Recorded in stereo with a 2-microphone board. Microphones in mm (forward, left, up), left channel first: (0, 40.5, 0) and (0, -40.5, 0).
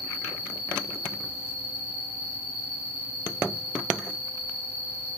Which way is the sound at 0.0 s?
65° right (ahead or behind).